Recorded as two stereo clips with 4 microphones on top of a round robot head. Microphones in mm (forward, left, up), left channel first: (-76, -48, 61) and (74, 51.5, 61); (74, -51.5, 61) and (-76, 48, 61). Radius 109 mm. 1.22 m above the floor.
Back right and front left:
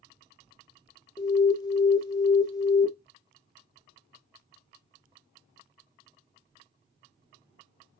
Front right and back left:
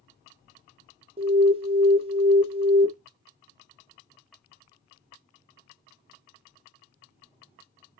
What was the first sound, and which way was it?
An alarm, 165° left.